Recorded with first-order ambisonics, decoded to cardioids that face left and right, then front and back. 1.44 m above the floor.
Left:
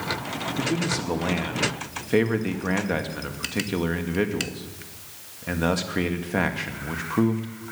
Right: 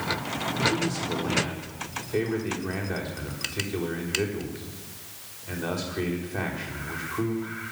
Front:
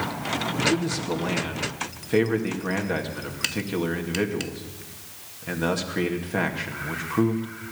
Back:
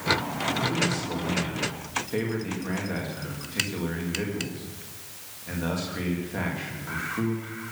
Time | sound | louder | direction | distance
0.6 | a man speaking | right 1 dB, front 3 dB | 65° left | 2.5 m